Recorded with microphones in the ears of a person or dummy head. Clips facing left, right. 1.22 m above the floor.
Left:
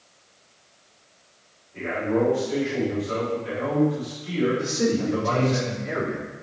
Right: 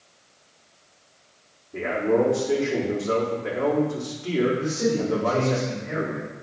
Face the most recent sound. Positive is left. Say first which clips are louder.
# even
turn(degrees=55)  # may be behind; listen again after turning